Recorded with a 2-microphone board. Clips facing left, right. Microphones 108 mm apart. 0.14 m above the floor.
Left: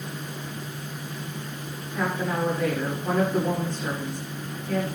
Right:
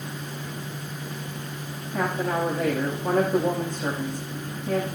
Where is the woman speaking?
50° right (ahead or behind), 7.5 m.